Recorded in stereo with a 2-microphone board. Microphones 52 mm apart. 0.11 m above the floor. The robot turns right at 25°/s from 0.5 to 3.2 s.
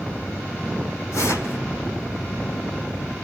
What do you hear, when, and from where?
1.1 s tearing paper: 75° left (ahead or behind), 5.5 m; by 1.6 s 65° left (ahead or behind), 5.5 m